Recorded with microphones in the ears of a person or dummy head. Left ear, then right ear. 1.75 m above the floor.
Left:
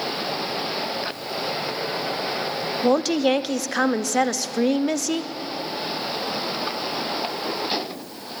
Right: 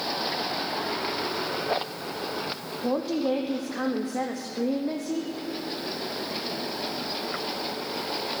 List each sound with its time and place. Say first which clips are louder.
2.8 s a woman speaking: left 6 dB; 70° left (ahead or behind), 0.7 m